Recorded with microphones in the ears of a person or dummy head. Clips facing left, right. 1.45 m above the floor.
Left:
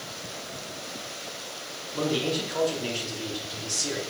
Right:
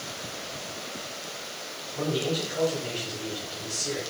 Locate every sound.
1.9 s a man speaking: 80° left, 3.5 m